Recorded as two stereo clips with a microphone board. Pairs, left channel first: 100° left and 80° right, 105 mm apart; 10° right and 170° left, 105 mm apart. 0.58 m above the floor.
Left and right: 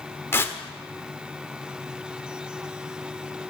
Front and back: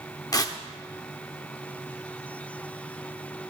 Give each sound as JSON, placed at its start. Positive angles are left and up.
{"t": 0.3, "sound": "tearing paper", "azimuth_deg": 35, "distance_m": 1.0}